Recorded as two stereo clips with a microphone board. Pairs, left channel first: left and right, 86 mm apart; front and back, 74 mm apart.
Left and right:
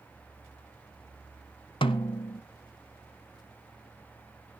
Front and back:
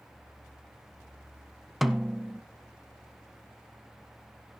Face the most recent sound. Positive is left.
turn(degrees=90)